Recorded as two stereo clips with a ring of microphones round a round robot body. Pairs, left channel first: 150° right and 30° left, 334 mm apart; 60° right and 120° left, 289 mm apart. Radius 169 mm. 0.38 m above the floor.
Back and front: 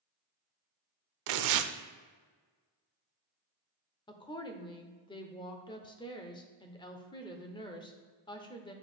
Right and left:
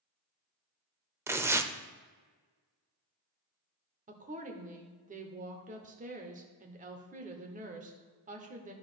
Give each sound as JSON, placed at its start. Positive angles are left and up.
{"t": 1.3, "sound": "tearing paper", "azimuth_deg": 40, "distance_m": 0.6}
{"t": 4.1, "sound": "a woman speaking", "azimuth_deg": 150, "distance_m": 0.8}